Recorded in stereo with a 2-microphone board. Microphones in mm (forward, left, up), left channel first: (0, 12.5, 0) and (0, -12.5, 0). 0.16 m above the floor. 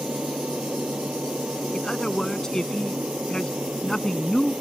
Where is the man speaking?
25° left (ahead or behind).